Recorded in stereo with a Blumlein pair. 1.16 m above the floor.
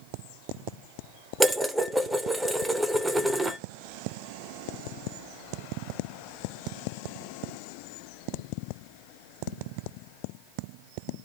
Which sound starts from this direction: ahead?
Dishes clattering, at 1.4 s.